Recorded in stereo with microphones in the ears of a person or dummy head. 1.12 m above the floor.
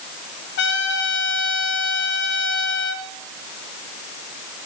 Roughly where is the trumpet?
Left.